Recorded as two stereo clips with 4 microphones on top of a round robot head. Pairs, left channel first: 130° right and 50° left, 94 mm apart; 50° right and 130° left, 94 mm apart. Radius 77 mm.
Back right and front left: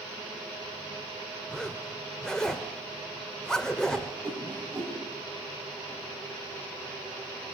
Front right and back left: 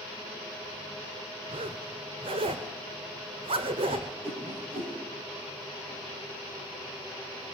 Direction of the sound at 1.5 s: 145° left.